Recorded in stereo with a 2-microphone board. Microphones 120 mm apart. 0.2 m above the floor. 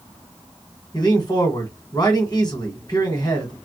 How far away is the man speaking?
About 1.4 m.